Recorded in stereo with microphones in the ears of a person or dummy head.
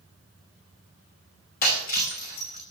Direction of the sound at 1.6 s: 50° left (ahead or behind).